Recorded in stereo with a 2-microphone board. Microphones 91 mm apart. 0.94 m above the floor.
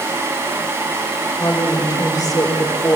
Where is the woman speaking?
40° left (ahead or behind), 4 m.